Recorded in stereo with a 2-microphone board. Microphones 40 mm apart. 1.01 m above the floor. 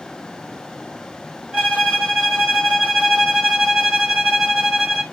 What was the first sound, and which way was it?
A violin, 20° right (ahead or behind).